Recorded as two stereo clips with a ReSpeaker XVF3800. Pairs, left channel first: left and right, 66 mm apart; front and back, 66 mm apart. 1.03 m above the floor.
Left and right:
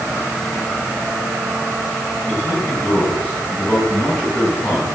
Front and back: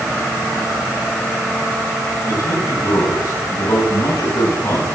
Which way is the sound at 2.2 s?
20° left.